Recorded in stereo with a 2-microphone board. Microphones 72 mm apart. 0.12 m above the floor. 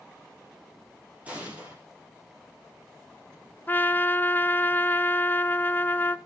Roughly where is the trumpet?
Left.